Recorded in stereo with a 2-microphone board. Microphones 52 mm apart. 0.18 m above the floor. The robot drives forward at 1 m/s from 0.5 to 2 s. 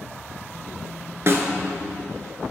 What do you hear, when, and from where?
1.3 s a snare drum: 50° right (ahead or behind), 0.9 m; by 1.5 s 55° right (ahead or behind), 0.8 m